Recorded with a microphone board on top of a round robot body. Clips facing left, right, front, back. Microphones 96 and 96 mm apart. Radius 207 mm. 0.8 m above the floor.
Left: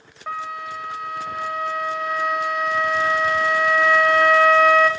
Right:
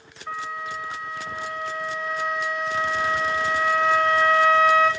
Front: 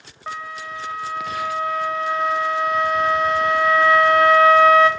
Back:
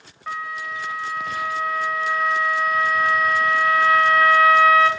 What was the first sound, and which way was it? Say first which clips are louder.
A flute: left 2 dB, back 1 dB; 60° left.